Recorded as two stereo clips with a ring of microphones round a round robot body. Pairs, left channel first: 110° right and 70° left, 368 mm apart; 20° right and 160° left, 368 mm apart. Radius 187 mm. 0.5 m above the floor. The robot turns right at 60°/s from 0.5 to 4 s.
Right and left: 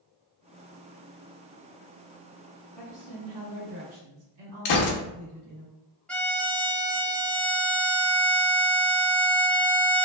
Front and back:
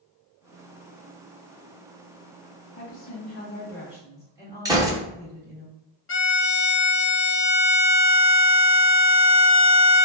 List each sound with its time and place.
2.8 s a woman speaking: 5° left, 1.3 m; by 5.7 s 80° left, 1.3 m
4.7 s a gunshot: 125° right, 0.7 m
6.1 s a violin: 30° right, 0.6 m